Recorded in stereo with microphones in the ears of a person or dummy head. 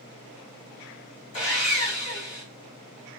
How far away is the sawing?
About 2 m.